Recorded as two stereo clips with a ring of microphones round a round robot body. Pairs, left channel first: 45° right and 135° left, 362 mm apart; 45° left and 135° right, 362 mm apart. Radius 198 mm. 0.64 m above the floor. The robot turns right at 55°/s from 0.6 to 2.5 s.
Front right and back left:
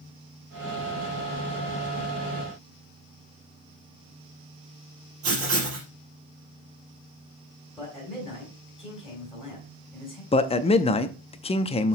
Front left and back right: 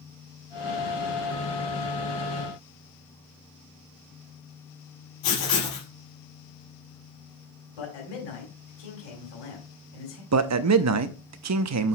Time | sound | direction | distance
5.2 | writing | 80° left | 4 m
7.8 | a man speaking | 45° left | 3.5 m
10.3 | a man speaking | 115° right | 0.7 m